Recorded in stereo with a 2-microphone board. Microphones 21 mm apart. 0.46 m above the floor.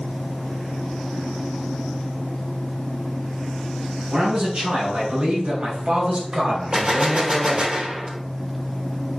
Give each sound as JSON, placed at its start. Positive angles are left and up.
{"t": 4.1, "sound": "a man speaking", "side_deg": -65, "distance_m": 4.0}
{"t": 6.7, "sound": "a gunshot", "side_deg": -45, "distance_m": 1.1}